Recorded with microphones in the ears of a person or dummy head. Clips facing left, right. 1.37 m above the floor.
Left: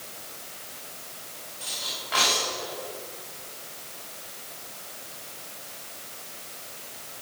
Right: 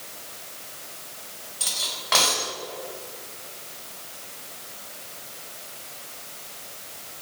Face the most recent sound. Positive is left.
turn(degrees=-80)